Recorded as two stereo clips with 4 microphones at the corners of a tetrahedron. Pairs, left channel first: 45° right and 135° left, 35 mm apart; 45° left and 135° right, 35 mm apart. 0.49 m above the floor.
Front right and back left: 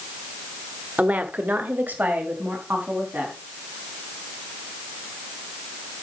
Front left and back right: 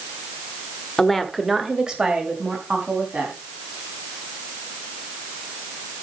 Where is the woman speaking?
115° left, 1.2 m; by 3.4 s 175° left, 4 m.